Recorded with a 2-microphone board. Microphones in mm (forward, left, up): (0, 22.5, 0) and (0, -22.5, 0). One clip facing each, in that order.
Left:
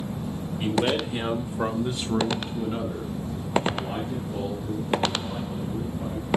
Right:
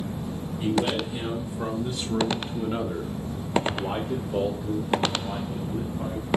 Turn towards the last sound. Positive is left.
turn(degrees=-75)  # may be behind; listen again after turning